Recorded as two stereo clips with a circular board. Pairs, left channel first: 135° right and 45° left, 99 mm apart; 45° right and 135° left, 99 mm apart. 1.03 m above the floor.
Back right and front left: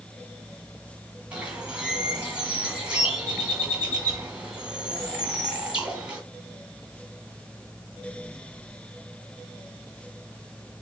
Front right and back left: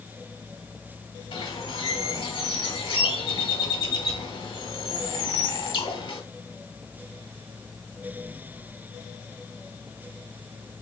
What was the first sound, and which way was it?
A bird, 35° right.